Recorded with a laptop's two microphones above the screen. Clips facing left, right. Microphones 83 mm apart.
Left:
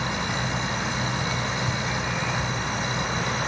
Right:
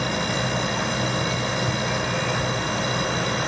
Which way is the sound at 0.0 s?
80° right.